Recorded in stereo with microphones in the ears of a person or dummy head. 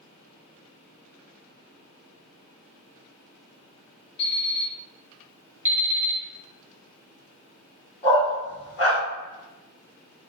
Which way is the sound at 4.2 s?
70° left (ahead or behind).